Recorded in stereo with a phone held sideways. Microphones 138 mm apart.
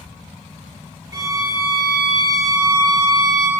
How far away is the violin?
About 1.3 m.